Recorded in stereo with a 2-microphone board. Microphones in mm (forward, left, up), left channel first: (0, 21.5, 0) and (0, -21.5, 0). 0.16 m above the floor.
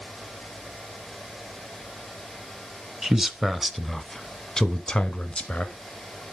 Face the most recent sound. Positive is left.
turn(degrees=25)  # may be behind; listen again after turning